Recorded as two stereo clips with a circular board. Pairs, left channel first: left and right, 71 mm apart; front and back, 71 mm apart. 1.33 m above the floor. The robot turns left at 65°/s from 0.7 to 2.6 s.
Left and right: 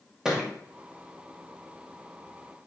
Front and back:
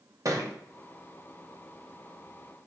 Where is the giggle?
No giggle in this recording.